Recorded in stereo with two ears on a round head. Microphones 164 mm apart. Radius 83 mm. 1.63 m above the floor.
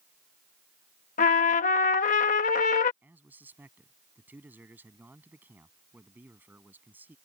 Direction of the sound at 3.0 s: 10° right (ahead or behind).